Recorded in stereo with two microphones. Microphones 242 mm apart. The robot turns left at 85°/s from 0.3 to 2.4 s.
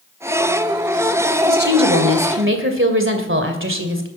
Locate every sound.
1.4 s a woman speaking: 35° right, 2.5 m; by 4.1 s 115° right, 2.5 m